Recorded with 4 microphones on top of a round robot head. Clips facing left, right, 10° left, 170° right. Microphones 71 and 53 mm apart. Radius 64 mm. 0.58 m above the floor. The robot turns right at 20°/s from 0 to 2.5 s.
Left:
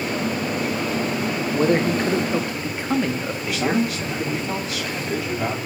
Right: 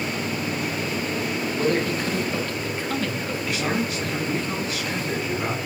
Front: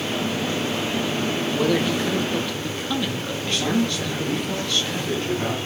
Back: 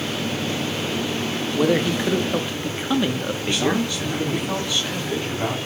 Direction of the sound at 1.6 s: 125° left.